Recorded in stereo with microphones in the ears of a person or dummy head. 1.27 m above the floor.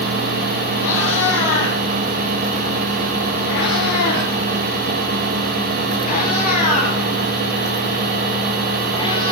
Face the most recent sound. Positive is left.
turn(degrees=25)  # may be behind; listen again after turning